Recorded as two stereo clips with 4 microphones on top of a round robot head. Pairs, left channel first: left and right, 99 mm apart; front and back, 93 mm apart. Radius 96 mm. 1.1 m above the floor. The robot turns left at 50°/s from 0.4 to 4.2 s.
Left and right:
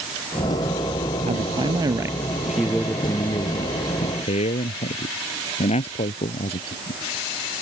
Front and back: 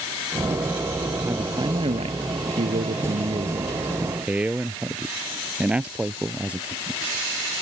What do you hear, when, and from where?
1.3 s a man speaking: 110° right; by 7.0 s 100° left